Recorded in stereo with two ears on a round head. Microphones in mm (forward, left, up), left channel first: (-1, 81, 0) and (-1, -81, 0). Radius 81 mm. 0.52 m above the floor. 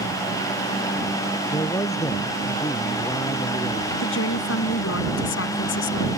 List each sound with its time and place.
1.5 s a man speaking: 15° left (ahead or behind)
4.0 s a woman speaking: 70° left (ahead or behind)